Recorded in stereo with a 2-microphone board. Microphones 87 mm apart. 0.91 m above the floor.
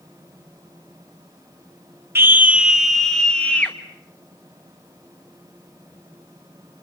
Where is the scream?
30° right (ahead or behind), 1.0 m; by 3.8 s 20° left (ahead or behind), 1.3 m.